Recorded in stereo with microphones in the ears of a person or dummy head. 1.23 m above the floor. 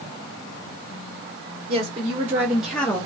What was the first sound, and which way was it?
A woman speaking, 25° right (ahead or behind).